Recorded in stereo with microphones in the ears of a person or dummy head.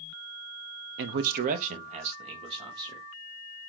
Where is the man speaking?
65° right (ahead or behind), 0.6 m; by 3.1 s 30° right (ahead or behind), 1.9 m.